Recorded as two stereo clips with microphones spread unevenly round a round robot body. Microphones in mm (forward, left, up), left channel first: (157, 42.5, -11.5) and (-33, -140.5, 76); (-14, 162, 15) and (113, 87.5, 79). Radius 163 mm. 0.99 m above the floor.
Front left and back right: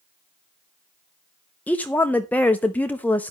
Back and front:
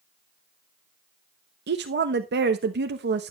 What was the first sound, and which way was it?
A woman speaking, 35° right.